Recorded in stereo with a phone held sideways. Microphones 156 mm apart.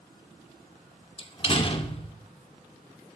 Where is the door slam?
35° left (ahead or behind), 2.0 m.